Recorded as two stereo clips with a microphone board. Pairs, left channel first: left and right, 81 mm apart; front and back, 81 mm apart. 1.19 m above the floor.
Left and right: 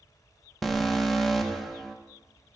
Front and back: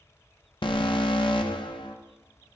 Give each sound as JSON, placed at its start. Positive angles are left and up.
{"t": 0.6, "sound": "an alarm", "azimuth_deg": 0, "distance_m": 1.0}